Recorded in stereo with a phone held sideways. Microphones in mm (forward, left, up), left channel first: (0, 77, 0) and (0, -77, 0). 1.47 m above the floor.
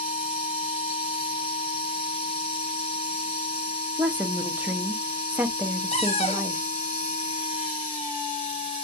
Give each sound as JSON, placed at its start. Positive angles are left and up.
{"t": 0.0, "sound": "a machine running", "side_deg": 35, "distance_m": 1.6}
{"t": 4.0, "sound": "a woman speaking", "side_deg": -10, "distance_m": 0.7}
{"t": 5.9, "sound": "a cupboard door", "side_deg": 40, "distance_m": 0.9}